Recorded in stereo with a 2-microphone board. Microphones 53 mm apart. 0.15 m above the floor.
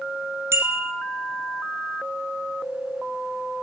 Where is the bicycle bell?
55° right (ahead or behind), 2.5 m.